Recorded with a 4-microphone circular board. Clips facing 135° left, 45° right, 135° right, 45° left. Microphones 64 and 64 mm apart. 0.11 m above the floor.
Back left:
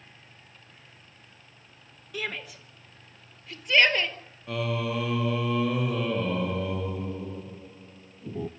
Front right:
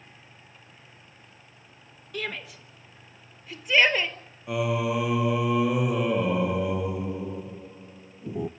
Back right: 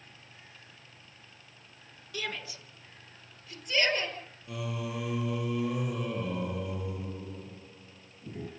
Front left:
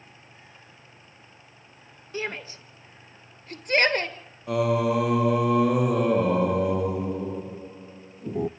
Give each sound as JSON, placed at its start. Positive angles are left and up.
{"t": 2.1, "sound": "a shout", "azimuth_deg": 50, "distance_m": 1.8}
{"t": 4.5, "sound": "singing", "azimuth_deg": 30, "distance_m": 0.9}